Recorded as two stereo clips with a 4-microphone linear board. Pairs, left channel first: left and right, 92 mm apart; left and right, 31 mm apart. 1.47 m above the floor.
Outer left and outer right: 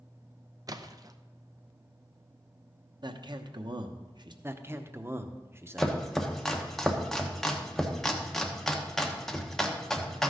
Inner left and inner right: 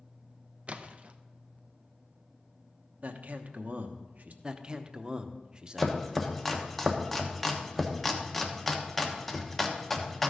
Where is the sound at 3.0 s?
50° right (ahead or behind), 0.9 m.